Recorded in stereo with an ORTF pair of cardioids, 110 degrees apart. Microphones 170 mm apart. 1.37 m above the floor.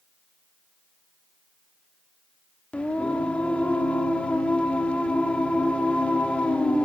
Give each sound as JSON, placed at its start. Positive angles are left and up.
{"t": 2.7, "sound": "singing", "azimuth_deg": 5, "distance_m": 2.5}